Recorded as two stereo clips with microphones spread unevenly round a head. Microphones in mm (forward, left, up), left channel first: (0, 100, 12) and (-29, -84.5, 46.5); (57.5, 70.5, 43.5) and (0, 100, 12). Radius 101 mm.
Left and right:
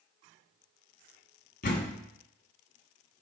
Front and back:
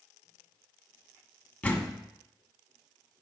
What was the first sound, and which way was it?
A door slam, 30° left.